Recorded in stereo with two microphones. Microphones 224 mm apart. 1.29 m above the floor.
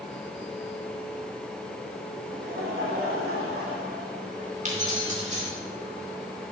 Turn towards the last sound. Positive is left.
turn(degrees=-35)  # may be behind; listen again after turning